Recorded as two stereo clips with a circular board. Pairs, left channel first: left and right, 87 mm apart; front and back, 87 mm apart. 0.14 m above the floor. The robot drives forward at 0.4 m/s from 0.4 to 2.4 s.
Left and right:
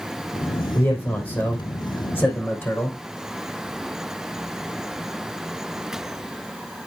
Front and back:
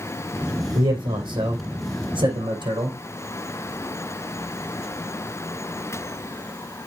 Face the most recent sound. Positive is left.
turn(degrees=160)